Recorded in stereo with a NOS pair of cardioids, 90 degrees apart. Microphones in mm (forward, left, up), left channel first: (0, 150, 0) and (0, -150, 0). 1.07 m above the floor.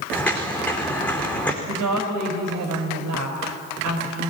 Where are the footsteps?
5° left, 4 m.